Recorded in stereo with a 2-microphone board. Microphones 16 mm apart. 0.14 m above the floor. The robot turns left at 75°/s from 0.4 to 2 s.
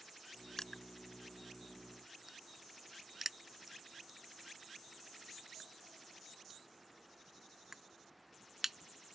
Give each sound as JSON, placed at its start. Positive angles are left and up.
{"t": 0.6, "sound": "crushing", "side_deg": 35}